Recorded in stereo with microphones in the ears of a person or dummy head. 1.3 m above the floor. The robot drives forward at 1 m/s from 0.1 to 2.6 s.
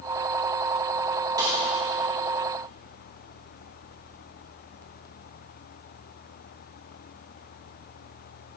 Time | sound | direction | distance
1.4 | a snare drum | 20° right (ahead or behind) | 6.5 m